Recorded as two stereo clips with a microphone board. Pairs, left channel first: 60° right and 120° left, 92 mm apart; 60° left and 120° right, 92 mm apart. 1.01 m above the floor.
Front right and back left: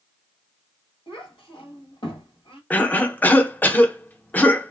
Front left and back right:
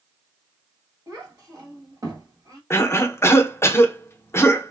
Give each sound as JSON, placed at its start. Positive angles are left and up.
{"t": 1.1, "sound": "a child speaking", "azimuth_deg": -70, "distance_m": 1.3}
{"t": 2.7, "sound": "a cough", "azimuth_deg": 10, "distance_m": 0.6}